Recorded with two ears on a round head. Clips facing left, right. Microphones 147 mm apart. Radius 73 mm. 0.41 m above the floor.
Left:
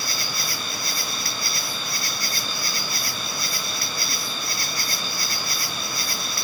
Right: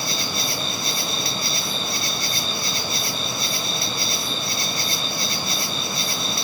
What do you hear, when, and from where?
0.0 s an insect: 20° right (ahead or behind), 1.5 m